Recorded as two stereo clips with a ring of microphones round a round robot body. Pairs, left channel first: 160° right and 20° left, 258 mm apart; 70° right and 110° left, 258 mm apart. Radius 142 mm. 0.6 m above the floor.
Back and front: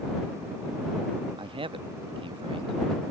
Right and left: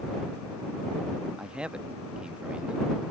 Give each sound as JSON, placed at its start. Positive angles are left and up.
{"t": 1.4, "sound": "a man speaking", "azimuth_deg": 35}